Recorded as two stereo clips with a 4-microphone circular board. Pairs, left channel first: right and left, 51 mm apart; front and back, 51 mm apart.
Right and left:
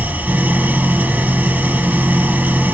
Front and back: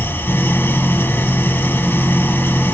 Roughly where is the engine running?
Ahead left.